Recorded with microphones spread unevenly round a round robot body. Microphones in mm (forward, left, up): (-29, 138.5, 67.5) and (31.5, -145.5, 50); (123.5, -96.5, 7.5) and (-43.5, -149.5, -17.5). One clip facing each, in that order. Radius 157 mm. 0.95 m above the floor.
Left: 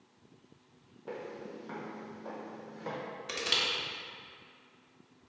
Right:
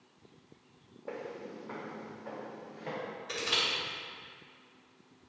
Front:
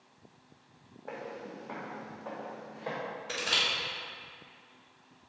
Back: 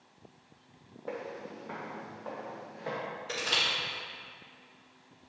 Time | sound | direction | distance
1.1 | footsteps | 160° left | 2 m
3.3 | crushing | 125° left | 1.8 m